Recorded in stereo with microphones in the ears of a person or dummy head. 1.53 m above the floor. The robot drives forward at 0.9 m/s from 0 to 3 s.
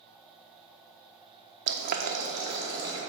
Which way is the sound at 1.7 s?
55° right (ahead or behind).